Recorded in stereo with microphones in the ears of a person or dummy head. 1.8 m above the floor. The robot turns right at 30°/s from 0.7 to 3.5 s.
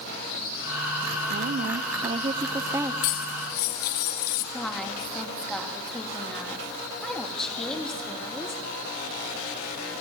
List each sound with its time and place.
1.3 s a woman speaking: 60° right, 0.8 m; by 2.9 s 10° right, 0.8 m
3.0 s cutlery clinking: 45° left (ahead or behind), 1.5 m
4.5 s a woman speaking: 5° left (ahead or behind), 3 m